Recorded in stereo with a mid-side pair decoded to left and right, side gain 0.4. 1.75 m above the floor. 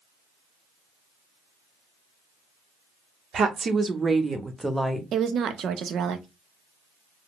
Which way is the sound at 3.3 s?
60° right.